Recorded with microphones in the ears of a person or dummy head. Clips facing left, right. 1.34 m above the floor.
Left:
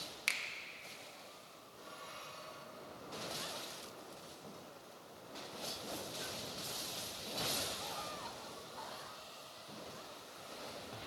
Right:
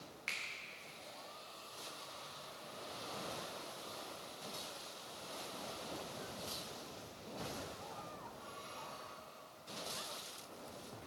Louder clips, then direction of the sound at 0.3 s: Left 3 dB; 60° left (ahead or behind).